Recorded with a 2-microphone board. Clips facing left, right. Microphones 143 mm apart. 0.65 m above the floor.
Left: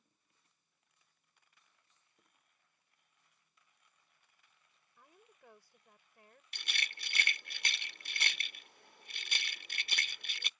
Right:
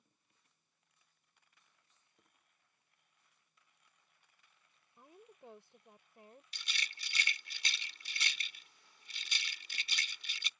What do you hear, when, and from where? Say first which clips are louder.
5.0 s a woman speaking: right 6 dB; 25° right (ahead or behind)
6.5 s a rattle: left 3 dB; 60° left (ahead or behind)